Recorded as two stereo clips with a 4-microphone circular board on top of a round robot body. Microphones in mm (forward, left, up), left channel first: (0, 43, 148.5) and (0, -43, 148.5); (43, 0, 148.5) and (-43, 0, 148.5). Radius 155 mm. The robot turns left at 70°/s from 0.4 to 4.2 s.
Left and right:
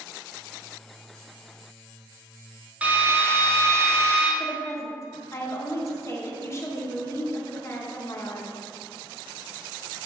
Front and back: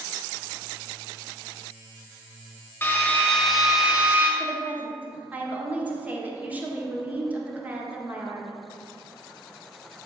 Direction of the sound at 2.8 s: 35° right.